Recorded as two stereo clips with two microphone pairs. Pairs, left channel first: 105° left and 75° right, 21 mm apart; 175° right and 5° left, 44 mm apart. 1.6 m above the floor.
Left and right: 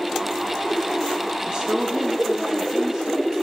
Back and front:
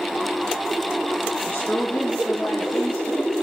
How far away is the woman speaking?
About 4.5 m.